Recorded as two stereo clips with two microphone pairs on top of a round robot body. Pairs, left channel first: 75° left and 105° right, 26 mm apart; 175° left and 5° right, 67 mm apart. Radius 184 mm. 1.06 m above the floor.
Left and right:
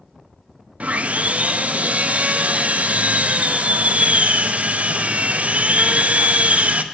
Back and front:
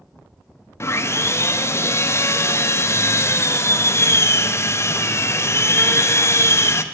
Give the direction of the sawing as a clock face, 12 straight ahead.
5 o'clock.